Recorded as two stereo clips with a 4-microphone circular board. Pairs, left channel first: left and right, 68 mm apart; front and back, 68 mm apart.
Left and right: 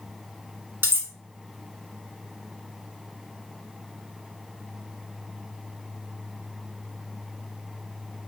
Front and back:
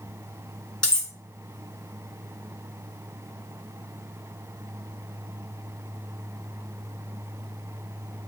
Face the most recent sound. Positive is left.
turn(degrees=-65)